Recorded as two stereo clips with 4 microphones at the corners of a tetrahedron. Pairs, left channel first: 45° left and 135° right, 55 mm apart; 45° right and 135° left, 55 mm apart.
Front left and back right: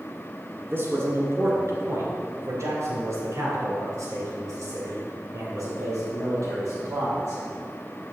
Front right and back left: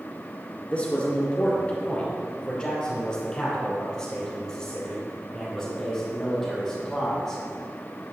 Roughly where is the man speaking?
Right.